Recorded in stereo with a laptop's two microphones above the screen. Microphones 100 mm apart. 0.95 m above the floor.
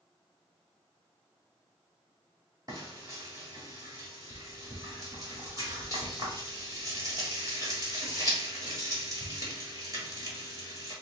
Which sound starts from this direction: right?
Frying, at 2.7 s.